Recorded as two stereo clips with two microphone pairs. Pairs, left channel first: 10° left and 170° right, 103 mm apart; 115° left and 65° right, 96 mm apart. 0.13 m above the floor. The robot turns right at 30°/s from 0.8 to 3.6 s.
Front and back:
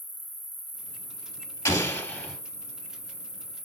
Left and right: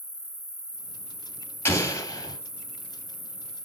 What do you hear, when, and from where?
0.0 s an insect: 35° right, 2.5 m; by 3.7 s 50° left, 2.5 m
1.6 s an explosion: 65° left, 1.9 m; by 2.4 s 85° left, 1.9 m